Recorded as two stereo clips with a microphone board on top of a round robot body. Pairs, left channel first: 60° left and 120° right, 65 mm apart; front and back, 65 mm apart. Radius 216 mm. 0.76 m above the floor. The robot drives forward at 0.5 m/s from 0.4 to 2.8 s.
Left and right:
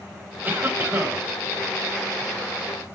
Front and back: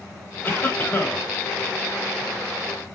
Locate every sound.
0.4 s a cough: 60° right, 5.5 m